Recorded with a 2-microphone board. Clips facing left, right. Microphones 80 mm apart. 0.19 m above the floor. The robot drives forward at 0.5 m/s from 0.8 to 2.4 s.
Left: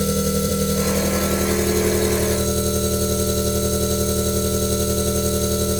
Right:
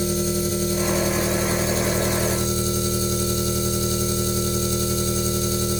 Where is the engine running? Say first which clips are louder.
Left 2 dB; 75° left (ahead or behind), 2.0 m; by 5.8 s 65° left (ahead or behind), 2 m.